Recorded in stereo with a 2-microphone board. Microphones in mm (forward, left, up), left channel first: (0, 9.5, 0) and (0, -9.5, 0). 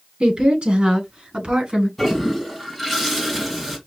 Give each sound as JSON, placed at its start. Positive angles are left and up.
{"t": 0.2, "sound": "a woman speaking", "side_deg": -60, "distance_m": 3.5}
{"t": 2.0, "sound": "a toilet flushing", "side_deg": 0, "distance_m": 2.5}